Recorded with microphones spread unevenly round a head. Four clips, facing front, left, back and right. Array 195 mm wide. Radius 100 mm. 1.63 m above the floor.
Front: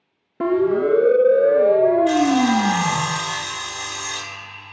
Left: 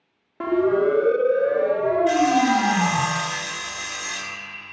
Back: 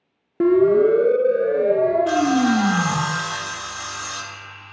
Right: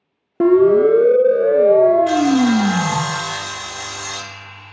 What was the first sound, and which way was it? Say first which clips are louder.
A siren: right 8 dB, back 4 dB; 110° right.